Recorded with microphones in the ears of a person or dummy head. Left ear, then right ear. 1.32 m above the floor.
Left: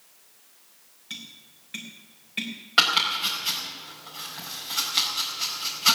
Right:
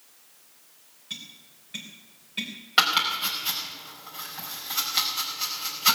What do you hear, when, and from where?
1.1 s tapping: 20° left (ahead or behind), 3.5 m
2.8 s chopping: 5° right (ahead or behind), 4.5 m